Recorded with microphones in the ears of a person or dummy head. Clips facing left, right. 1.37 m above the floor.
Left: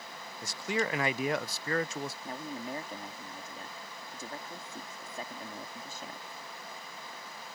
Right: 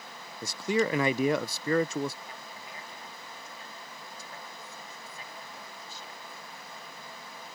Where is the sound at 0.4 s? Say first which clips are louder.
Right 5 dB; 80° right.